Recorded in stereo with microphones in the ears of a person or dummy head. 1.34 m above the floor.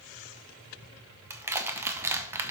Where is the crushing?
15° right (ahead or behind), 0.7 m.